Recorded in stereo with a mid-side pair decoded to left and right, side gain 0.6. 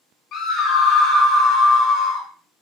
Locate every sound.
0.3 s a scream: 55° left, 1.9 m